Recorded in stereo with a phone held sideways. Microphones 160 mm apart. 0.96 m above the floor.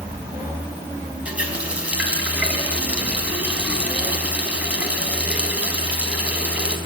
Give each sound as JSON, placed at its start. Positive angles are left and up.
{"t": 1.2, "sound": "a running tap", "side_deg": -5, "distance_m": 5.0}